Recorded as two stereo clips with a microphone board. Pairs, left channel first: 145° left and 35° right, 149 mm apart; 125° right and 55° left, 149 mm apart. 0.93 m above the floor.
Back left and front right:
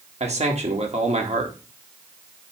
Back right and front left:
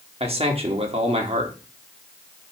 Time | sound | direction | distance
0.2 | a man speaking | 10° left | 1.8 m